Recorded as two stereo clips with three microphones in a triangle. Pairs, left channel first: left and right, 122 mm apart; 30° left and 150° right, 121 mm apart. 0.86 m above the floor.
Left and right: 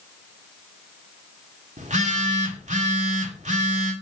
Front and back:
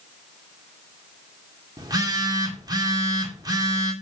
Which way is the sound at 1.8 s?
90° right.